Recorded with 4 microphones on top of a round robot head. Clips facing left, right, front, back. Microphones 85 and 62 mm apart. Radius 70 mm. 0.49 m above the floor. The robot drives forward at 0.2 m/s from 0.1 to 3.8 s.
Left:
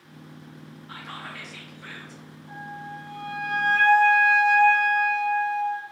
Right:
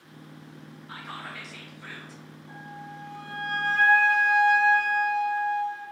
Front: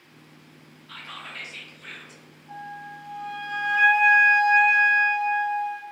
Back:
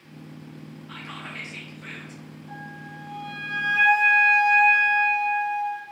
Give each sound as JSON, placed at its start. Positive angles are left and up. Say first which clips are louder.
{"t": 0.9, "sound": "whispering", "louder": "even, back 1 dB", "azimuth_deg": -170, "distance_m": 0.8}
{"t": 2.5, "sound": "a flute", "louder": "left 5 dB, front 3 dB", "azimuth_deg": 170, "distance_m": 1.7}